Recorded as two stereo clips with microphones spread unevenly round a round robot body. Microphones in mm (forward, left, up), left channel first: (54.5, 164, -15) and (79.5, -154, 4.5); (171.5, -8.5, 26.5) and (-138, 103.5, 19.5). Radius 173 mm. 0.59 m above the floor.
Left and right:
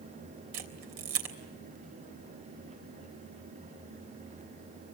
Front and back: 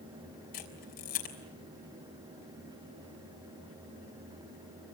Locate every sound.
0.5 s a camera shutter: 85° right, 3.5 m